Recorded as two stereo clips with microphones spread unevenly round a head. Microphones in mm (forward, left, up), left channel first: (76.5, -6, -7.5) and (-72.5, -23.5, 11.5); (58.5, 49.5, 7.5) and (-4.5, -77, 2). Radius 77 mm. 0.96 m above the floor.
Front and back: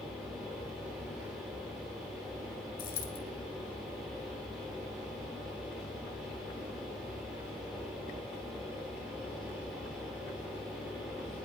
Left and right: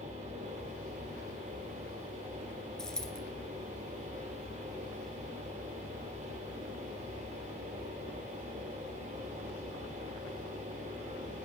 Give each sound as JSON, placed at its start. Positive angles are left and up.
{"t": 0.0, "sound": "a fan", "azimuth_deg": -85, "distance_m": 6.0}
{"t": 2.8, "sound": "a dropped coin", "azimuth_deg": -20, "distance_m": 2.5}